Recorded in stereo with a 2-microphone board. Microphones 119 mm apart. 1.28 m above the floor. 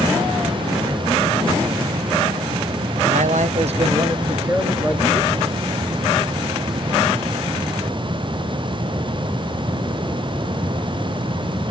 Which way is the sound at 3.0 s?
75° right (ahead or behind).